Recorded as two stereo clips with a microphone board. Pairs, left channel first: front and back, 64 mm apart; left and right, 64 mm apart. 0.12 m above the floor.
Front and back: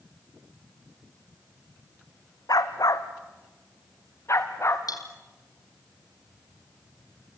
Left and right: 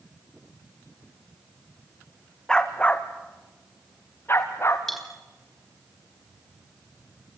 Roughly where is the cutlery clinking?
Ahead.